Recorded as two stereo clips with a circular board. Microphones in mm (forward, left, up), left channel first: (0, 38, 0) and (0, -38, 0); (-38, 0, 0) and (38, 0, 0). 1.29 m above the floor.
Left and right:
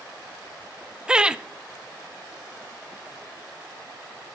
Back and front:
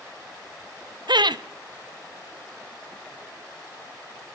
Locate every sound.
1.1 s laughter: 10° right, 0.5 m